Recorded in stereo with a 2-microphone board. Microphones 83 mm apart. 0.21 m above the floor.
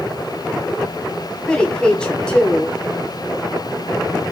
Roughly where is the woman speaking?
Centre.